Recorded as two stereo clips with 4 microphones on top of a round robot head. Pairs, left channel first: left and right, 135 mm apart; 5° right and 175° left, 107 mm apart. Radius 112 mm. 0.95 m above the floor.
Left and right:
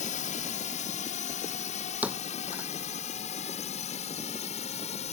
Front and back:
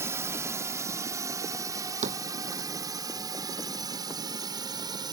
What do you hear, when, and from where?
0.0 s a drone: 110° left; by 5.1 s 125° left
2.0 s a thud: 170° right